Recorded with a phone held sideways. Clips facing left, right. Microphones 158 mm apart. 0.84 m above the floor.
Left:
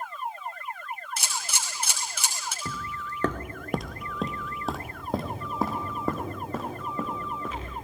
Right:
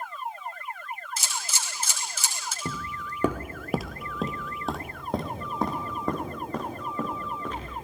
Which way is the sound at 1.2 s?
65° left (ahead or behind).